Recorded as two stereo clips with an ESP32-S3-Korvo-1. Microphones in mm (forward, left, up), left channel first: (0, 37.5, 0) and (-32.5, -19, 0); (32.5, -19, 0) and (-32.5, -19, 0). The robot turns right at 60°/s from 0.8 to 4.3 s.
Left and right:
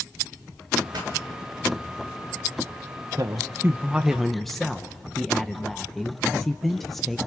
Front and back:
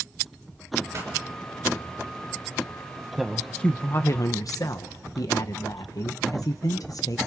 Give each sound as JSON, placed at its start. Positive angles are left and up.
{"t": 0.9, "sound": "a pop", "azimuth_deg": -135, "distance_m": 5.0}
{"t": 3.2, "sound": "a woman speaking", "azimuth_deg": -95, "distance_m": 0.8}